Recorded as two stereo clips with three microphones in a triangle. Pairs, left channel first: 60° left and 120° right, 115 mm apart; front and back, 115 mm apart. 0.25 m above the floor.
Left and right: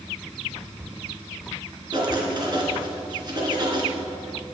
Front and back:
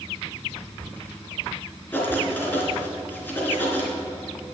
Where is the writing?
70° right, 3.5 m.